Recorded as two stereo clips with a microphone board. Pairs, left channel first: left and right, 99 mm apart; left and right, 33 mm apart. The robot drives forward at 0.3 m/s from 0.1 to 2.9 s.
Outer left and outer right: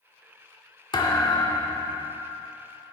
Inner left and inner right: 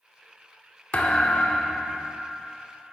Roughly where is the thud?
Left.